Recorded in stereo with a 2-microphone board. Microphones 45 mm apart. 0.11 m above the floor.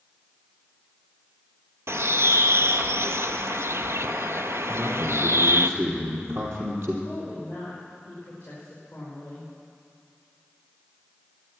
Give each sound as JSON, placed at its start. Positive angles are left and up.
{"t": 1.9, "sound": "a bird", "side_deg": -70, "distance_m": 0.7}
{"t": 4.7, "sound": "a man speaking", "side_deg": -55, "distance_m": 3.0}
{"t": 7.0, "sound": "a woman speaking", "side_deg": 25, "distance_m": 6.0}